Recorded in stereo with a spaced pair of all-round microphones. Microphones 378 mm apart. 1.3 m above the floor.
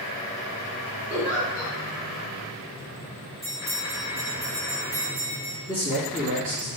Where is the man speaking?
35° left (ahead or behind), 1.6 m.